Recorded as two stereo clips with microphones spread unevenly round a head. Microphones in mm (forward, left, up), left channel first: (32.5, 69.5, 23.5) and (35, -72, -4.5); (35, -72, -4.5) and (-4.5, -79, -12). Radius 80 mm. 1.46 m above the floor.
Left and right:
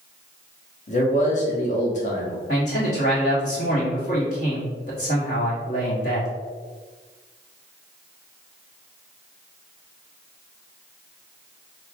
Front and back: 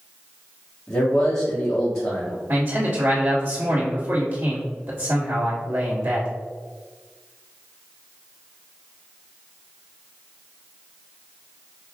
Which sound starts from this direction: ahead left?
A man speaking, at 0.9 s.